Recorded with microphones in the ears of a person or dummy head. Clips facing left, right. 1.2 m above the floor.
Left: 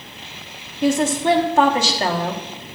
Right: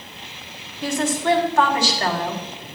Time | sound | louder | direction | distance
0.8 | a woman speaking | left 4 dB | 15° left (ahead or behind) | 1.3 m